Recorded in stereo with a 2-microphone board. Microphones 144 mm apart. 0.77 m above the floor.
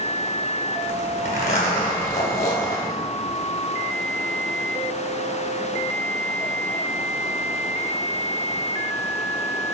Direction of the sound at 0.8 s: 90° left.